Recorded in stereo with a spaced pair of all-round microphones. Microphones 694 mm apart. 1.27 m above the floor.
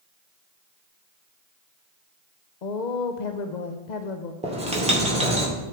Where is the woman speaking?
85° left, 0.8 m.